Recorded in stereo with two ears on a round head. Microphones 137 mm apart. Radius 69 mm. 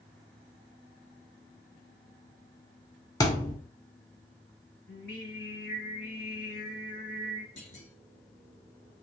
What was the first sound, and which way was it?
A thud, 25° left (ahead or behind).